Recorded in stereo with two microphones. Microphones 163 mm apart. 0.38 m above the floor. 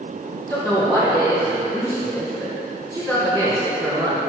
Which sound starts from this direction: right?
A woman speaking, at 0.5 s.